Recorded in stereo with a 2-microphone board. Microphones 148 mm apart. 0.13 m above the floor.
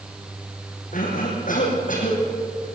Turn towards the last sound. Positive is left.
turn(degrees=65)  # may be behind; listen again after turning